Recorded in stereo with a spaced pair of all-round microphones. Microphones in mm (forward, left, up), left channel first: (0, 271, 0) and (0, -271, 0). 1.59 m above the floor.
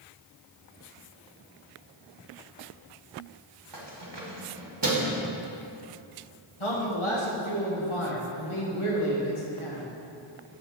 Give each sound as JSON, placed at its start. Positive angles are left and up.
{"t": 3.7, "sound": "keys jangling", "side_deg": -50, "distance_m": 1.0}
{"t": 6.6, "sound": "a man speaking", "side_deg": 60, "distance_m": 1.5}